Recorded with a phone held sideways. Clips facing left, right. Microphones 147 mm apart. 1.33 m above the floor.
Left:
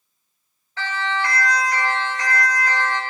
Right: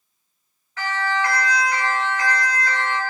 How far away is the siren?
About 6.5 m.